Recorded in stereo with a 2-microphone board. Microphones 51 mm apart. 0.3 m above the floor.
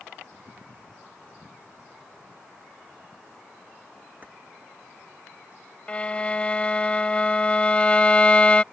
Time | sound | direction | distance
4.2 | keys jangling | 35° right (ahead or behind) | ?
5.9 | a violin | 25° left (ahead or behind) | ?